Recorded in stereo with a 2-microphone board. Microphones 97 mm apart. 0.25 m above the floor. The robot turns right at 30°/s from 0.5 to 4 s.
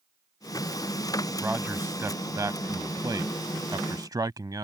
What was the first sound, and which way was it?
A man speaking, 15° right (ahead or behind).